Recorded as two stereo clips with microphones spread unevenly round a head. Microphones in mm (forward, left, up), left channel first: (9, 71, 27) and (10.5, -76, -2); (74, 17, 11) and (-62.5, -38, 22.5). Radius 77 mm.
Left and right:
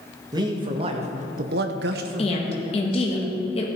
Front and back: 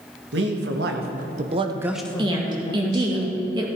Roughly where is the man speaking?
Behind.